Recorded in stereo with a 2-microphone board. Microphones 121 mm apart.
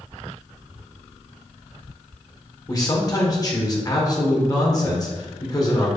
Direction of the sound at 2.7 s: 30° left (ahead or behind).